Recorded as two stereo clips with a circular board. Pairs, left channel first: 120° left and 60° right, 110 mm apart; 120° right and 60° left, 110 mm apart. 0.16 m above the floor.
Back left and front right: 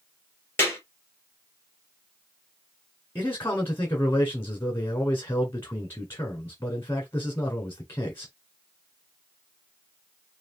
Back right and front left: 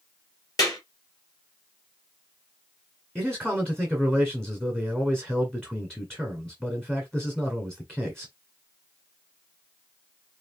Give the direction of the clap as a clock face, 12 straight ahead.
6 o'clock.